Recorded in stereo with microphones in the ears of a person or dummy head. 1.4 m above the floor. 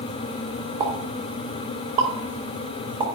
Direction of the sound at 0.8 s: 25° right (ahead or behind).